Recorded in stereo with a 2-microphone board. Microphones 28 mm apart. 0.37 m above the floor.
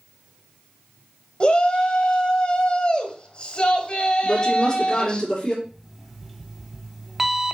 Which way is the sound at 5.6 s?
5° right (ahead or behind).